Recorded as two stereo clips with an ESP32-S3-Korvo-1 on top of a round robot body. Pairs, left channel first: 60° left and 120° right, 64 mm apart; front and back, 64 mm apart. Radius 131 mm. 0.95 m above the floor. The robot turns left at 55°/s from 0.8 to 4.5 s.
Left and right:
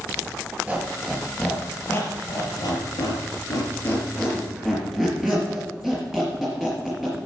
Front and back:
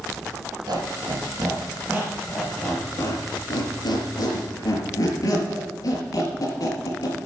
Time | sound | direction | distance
0.7 | a squeak | 170° left | 4 m